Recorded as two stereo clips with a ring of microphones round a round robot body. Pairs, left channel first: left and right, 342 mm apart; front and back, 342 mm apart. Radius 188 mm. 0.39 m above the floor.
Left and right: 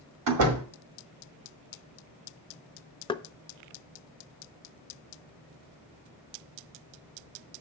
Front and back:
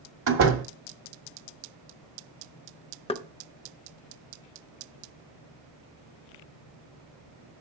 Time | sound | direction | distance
0.3 | a door slam | 125° right | 1.6 m
3.1 | knocking | 40° left | 0.6 m